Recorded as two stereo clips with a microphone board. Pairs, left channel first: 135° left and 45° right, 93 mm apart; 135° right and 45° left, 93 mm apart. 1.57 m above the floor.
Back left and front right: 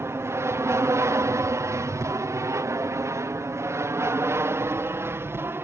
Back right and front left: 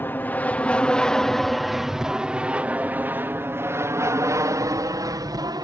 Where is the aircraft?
80° right; by 5.6 s 15° left.